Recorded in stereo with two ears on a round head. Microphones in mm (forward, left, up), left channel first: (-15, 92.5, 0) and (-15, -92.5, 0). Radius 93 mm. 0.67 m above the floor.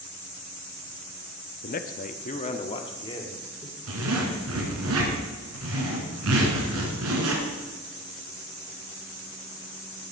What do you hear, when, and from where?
1.6 s a man speaking: 40° left (ahead or behind), 0.6 m; by 3.8 s 20° left (ahead or behind), 1.7 m
3.9 s a zipper: 85° right, 2.5 m